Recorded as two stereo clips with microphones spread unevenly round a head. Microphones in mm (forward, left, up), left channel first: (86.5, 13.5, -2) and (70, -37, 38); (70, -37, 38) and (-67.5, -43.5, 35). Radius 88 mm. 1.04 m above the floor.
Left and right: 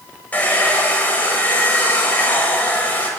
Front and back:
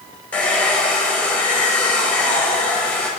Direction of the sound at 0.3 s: 80° left.